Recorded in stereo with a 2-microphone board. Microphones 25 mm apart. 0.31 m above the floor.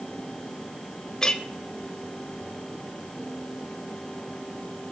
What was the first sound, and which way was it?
A clink, 25° left (ahead or behind).